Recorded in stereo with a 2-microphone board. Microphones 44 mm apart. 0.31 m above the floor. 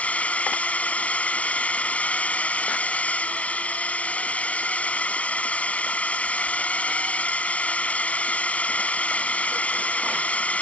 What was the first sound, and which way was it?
A drone, 35° left (ahead or behind).